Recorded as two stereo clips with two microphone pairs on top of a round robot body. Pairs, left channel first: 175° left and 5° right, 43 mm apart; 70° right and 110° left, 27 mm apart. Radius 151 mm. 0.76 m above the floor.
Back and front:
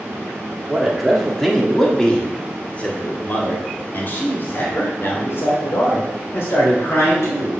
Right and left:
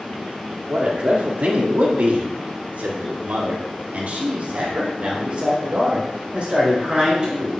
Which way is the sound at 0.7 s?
75° left.